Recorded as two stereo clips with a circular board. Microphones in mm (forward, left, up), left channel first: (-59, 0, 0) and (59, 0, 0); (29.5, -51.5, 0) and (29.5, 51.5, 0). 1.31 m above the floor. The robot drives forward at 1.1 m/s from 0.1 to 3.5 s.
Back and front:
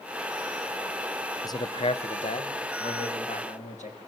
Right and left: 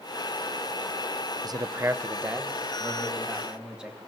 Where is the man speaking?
125° left, 0.5 m; by 4.0 s 170° left, 2.5 m.